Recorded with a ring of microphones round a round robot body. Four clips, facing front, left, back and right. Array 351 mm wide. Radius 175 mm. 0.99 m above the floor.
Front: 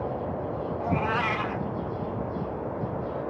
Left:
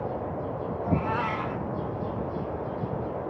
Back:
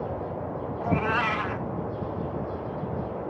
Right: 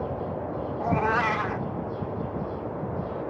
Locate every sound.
0.8 s a cat meowing: 105° right, 1.1 m